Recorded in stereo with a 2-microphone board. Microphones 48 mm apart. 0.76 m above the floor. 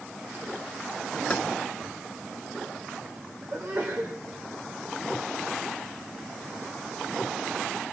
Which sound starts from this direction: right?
A sneeze, at 3.5 s.